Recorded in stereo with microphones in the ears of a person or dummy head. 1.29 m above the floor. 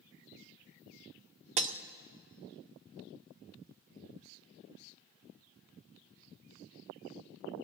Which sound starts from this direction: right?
Breaking glass, at 1.6 s.